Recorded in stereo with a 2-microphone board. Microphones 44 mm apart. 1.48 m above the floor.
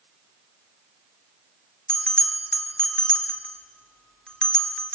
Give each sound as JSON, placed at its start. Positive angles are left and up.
{"t": 1.9, "sound": "a bell", "side_deg": 20, "distance_m": 2.0}